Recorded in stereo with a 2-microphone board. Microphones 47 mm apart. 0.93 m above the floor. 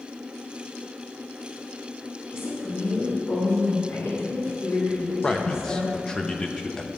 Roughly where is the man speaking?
Centre.